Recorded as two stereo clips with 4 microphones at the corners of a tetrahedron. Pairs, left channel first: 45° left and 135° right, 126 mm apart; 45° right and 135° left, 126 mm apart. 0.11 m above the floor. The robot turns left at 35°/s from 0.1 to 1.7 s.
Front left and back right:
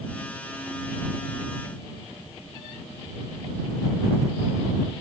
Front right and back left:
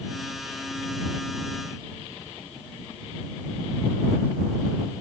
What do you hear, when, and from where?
Only background noise.